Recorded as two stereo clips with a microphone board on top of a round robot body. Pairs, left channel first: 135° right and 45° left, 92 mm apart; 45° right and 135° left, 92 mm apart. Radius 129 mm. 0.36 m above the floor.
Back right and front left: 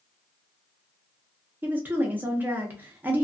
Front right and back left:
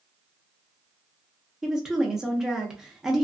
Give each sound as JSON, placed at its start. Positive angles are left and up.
{"t": 1.6, "sound": "a woman speaking", "azimuth_deg": 60, "distance_m": 0.8}